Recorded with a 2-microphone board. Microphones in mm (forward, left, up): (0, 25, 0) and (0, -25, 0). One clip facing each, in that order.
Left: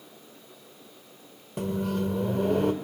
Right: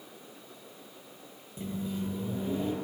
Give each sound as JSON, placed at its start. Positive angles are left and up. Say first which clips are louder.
{"t": 1.6, "sound": "a microwave", "louder": "left 7 dB", "side_deg": 60, "distance_m": 2.0}